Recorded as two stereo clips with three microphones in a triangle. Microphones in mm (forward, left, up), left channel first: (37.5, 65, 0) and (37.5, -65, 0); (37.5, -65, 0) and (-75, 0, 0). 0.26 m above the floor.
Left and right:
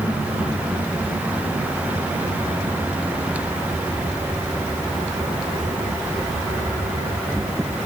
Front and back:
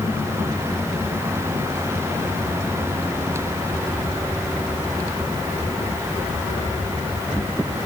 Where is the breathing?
I don't hear breathing.